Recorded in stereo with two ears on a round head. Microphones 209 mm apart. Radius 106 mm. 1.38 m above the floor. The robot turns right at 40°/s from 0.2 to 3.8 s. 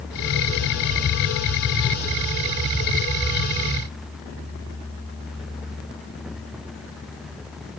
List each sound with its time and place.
Only background noise.